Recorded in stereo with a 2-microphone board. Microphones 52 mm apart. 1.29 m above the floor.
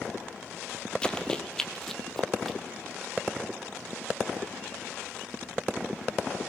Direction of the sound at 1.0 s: 20° left (ahead or behind).